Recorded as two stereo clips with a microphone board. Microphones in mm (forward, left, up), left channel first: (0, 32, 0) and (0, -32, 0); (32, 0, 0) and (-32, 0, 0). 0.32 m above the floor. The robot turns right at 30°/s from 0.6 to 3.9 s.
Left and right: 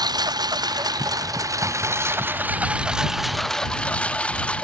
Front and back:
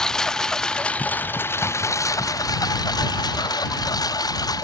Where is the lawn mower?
80° right; by 4.6 s 20° left.